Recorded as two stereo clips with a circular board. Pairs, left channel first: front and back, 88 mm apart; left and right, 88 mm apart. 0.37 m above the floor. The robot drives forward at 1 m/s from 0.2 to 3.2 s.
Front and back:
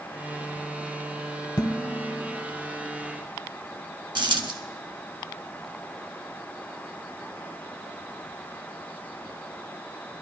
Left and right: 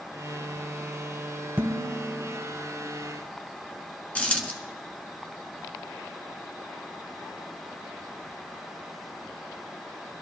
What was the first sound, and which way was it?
Dishes clattering, 25° right.